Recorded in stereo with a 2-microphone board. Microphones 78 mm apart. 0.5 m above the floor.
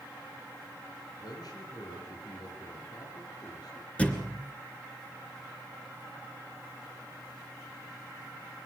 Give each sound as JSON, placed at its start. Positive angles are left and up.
{"t": 1.2, "sound": "a man speaking", "side_deg": 60, "distance_m": 8.0}
{"t": 4.0, "sound": "a thud", "side_deg": 15, "distance_m": 2.5}